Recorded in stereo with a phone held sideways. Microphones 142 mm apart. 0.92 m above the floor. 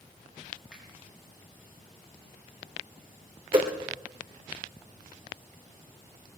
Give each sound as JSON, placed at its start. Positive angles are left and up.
{"t": 0.7, "sound": "a finger snap", "side_deg": -10, "distance_m": 6.0}
{"t": 3.5, "sound": "a whoosh", "side_deg": -35, "distance_m": 1.8}